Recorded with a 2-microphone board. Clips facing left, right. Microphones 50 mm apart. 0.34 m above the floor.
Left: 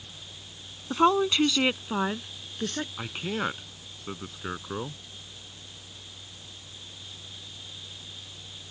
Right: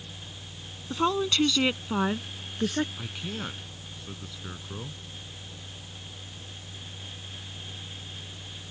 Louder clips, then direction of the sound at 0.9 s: Left 4 dB; 25° left (ahead or behind).